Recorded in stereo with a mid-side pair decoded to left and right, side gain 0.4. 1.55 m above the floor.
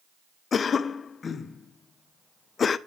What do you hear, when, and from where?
0.5 s a cough: 50° left, 0.8 m